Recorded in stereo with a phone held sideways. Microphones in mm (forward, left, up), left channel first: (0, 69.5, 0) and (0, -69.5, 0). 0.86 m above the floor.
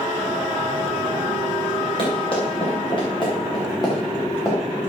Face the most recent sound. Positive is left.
turn(degrees=15)  # may be behind; listen again after turning